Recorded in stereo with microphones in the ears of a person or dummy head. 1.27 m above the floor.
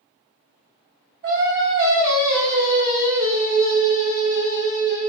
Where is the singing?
50° right (ahead or behind), 1.1 m.